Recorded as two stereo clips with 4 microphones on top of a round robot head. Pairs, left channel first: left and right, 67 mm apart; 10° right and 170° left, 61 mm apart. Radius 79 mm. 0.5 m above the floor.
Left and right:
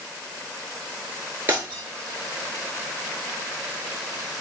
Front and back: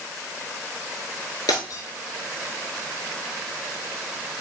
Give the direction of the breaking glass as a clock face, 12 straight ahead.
1 o'clock.